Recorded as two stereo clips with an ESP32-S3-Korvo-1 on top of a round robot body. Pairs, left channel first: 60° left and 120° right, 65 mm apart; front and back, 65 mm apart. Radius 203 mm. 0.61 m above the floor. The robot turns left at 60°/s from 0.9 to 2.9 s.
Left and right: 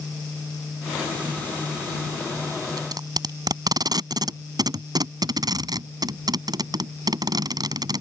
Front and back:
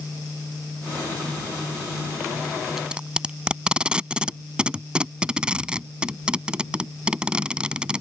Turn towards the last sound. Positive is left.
turn(degrees=-105)